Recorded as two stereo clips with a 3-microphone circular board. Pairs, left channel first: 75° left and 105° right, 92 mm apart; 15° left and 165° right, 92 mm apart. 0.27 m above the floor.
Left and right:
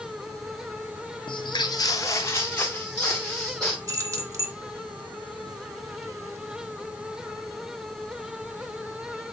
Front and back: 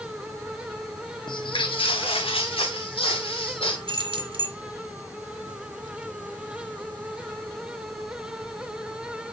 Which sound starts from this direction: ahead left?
Footsteps, at 1.3 s.